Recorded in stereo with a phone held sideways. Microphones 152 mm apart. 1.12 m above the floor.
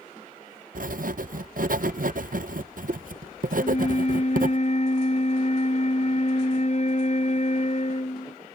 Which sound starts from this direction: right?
Writing, at 0.8 s.